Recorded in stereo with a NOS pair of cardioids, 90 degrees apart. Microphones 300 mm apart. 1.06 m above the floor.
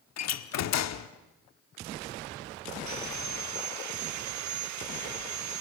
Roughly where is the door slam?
Ahead left.